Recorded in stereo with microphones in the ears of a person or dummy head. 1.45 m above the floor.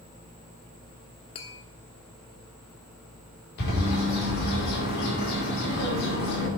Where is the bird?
55° left (ahead or behind), 5 m.